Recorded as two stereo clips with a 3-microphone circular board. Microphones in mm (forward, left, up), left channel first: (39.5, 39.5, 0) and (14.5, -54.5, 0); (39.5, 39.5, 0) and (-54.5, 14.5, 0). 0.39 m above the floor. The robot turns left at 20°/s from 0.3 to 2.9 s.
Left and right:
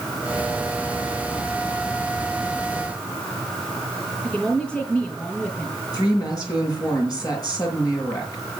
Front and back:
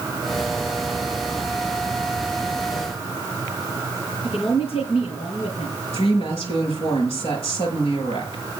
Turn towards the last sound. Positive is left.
turn(degrees=25)